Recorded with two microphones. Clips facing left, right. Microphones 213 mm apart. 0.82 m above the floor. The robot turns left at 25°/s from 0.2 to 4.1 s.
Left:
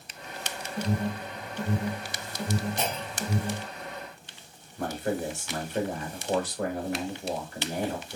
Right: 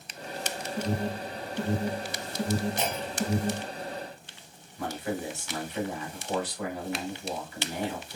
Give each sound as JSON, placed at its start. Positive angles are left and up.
{"t": 0.8, "sound": "an alarm", "side_deg": -5, "distance_m": 2.0}
{"t": 2.8, "sound": "a clunk", "side_deg": -5, "distance_m": 1.0}
{"t": 4.8, "sound": "a man speaking", "side_deg": 50, "distance_m": 1.2}